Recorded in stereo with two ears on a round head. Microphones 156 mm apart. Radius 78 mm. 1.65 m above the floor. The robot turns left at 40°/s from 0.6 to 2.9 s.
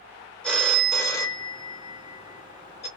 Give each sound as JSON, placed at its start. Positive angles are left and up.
{"t": 0.4, "sound": "a phone ringing", "side_deg": 5, "distance_m": 0.9}